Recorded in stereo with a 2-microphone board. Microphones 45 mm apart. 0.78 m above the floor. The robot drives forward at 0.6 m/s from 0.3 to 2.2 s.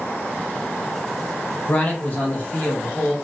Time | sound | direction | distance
1.7 | a man speaking | 35° left (ahead or behind) | 0.7 m